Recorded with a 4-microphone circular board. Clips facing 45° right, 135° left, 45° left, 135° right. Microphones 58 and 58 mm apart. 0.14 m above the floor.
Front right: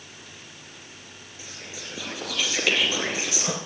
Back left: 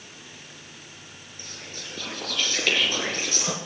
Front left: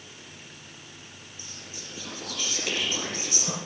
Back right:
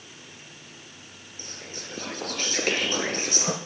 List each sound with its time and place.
1.4 s whispering: 125° right, 2 m